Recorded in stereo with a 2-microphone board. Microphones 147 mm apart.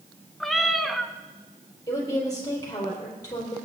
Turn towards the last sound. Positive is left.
turn(degrees=25)  # may be behind; listen again after turning